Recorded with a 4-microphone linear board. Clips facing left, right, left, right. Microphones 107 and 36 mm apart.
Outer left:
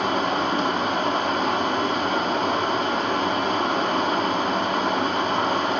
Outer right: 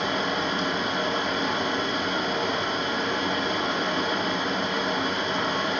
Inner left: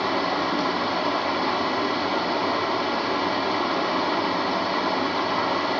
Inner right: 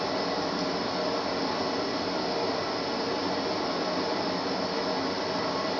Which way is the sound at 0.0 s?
50° left (ahead or behind).